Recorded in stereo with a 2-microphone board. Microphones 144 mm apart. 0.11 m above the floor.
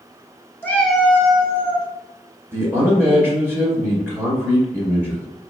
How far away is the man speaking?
About 1.7 m.